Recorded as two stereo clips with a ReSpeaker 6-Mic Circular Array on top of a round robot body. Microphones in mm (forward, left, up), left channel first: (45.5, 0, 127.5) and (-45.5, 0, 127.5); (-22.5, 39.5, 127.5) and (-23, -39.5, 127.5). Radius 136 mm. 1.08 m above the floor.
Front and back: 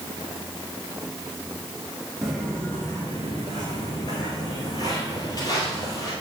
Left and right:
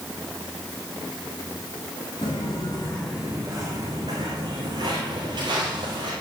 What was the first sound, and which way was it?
Footsteps, 95° left.